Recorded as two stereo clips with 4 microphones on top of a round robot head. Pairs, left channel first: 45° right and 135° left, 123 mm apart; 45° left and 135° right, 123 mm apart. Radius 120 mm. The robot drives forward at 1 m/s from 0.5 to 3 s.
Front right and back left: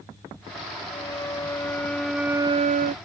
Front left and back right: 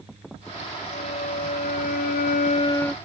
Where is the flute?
15° left; by 3.0 s 130° left.